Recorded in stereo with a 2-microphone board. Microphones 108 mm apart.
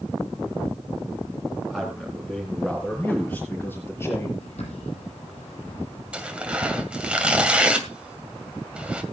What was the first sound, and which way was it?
A man speaking, 5° right (ahead or behind).